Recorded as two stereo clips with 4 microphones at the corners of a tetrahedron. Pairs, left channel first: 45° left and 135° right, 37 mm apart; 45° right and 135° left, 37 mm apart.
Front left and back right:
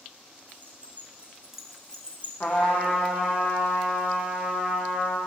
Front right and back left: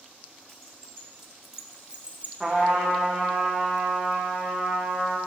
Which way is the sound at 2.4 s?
45° left.